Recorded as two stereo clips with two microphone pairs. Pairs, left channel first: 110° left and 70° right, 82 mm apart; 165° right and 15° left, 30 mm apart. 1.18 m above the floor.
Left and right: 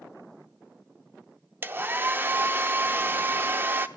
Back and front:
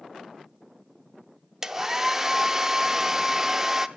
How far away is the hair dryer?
About 0.8 m.